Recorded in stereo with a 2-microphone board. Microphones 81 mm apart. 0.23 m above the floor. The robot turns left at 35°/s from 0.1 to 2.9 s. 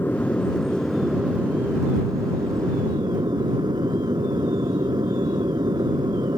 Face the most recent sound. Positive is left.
turn(degrees=-70)